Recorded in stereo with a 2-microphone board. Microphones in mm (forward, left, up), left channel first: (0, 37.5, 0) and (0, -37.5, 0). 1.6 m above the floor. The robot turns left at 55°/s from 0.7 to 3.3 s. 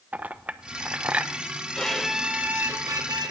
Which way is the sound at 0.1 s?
20° right (ahead or behind).